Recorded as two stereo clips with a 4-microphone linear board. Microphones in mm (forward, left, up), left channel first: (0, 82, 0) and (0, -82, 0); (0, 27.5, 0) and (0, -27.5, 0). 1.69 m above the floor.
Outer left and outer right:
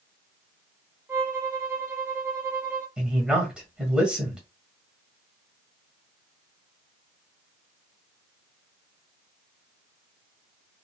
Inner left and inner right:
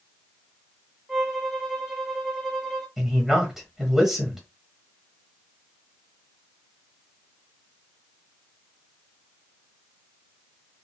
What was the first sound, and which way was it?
A violin, 15° right (ahead or behind).